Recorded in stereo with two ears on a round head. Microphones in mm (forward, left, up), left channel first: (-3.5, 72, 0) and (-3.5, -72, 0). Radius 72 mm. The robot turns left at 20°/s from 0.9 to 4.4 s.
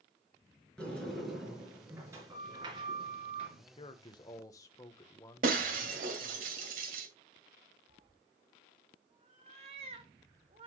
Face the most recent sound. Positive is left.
turn(degrees=-40)  # may be behind; listen again after turning